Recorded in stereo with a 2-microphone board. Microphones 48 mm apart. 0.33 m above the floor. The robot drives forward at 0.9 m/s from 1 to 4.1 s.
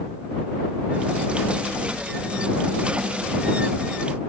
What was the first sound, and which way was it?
Only background noise.